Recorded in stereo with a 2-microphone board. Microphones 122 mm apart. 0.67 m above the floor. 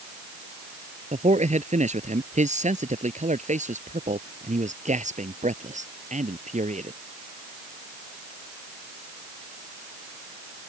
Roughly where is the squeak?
No squeak in this recording.